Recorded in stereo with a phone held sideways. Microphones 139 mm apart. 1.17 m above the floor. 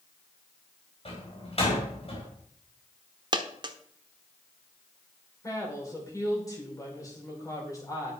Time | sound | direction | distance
1.1 | a door slam | 45° left (ahead or behind) | 4 m
3.3 | a dropped coin | 35° right (ahead or behind) | 1.3 m
5.4 | a woman speaking | 25° left (ahead or behind) | 5 m